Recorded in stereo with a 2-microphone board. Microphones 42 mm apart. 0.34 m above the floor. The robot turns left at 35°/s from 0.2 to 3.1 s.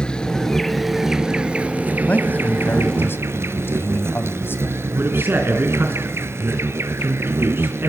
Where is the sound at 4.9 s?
60° right (ahead or behind), 3 m.